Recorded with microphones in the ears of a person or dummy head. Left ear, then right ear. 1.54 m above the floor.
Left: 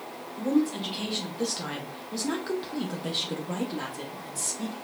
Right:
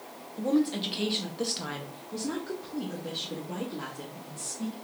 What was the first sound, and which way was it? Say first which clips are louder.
A woman speaking: left 1 dB; 35° right (ahead or behind).